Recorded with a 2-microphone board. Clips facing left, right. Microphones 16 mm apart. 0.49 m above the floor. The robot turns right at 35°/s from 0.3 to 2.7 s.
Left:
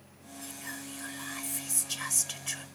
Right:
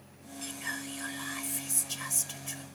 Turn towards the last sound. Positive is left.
turn(degrees=40)